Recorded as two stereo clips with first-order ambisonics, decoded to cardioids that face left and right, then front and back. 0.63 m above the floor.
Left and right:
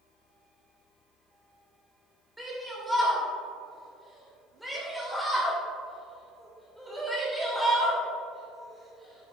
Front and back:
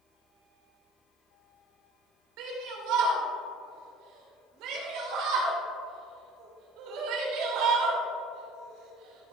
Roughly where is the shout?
Behind.